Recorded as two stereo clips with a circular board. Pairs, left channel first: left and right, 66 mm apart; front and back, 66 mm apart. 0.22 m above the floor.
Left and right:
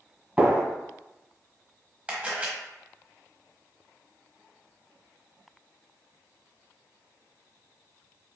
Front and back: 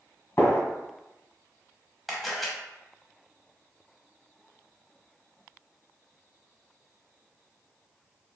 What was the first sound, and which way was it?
A gunshot, 35° right.